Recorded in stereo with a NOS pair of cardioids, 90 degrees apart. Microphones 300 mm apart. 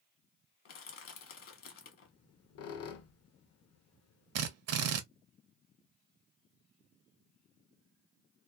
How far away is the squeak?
About 0.7 m.